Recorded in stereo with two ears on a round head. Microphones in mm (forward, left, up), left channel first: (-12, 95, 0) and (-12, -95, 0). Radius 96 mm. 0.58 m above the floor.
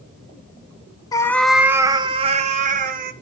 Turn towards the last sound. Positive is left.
turn(degrees=-45)  # may be behind; listen again after turning